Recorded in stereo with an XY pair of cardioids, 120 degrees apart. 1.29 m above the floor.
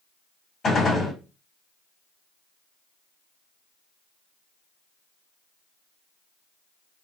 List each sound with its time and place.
0.6 s a gunshot: 35° left, 1.9 m